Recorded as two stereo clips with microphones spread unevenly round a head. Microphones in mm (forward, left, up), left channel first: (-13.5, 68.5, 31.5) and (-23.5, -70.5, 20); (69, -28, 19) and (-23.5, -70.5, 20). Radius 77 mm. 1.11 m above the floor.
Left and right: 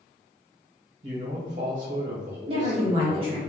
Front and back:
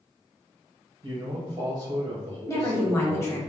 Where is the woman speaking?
40° right, 1.1 m.